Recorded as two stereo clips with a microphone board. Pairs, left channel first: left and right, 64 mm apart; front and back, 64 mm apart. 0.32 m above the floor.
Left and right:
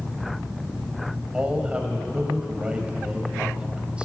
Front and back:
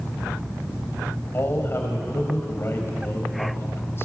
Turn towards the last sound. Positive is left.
turn(degrees=-25)